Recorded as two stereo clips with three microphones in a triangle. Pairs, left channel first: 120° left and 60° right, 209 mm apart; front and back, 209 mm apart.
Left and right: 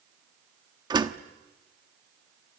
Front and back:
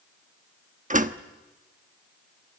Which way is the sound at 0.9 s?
130° right.